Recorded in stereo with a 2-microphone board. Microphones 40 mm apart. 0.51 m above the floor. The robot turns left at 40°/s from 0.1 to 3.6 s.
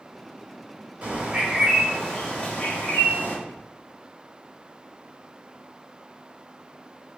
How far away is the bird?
About 1.1 m.